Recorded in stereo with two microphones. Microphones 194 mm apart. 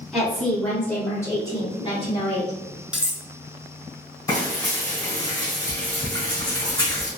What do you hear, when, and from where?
0.1 s a woman speaking: centre (ahead or behind), 1.7 m; by 2.6 s 35° left (ahead or behind), 1.2 m
2.9 s cutlery clinking: 5° right (ahead or behind), 0.5 m
4.3 s frying: 20° left (ahead or behind), 1.4 m